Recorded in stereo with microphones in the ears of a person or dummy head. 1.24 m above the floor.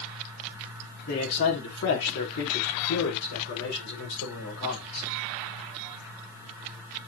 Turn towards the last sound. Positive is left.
turn(degrees=70)  # may be behind; listen again after turning